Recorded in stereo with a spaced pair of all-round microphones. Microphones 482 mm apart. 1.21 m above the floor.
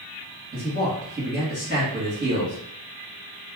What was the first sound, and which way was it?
A man speaking, 20° right (ahead or behind).